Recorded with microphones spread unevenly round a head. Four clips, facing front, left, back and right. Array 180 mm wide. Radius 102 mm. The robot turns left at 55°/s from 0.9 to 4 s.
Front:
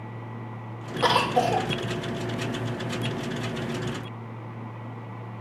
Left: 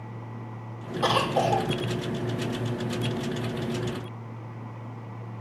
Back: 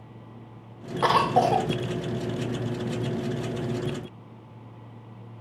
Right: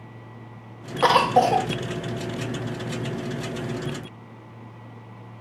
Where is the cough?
75° right, 1.3 m; by 1.7 s 110° right, 1.3 m.